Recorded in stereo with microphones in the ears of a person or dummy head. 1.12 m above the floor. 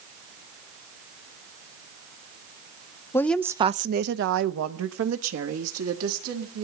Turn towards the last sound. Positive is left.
turn(degrees=-85)